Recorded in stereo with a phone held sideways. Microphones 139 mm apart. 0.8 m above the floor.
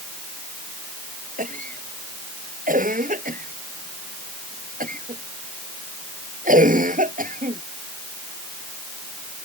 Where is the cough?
80° right.